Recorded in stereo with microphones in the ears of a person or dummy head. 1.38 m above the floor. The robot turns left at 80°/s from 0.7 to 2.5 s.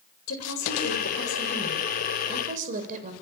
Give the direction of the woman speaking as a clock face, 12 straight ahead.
9 o'clock.